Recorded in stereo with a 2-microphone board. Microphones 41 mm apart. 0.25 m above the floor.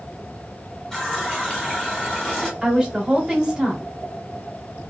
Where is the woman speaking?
15° right (ahead or behind), 1.1 m.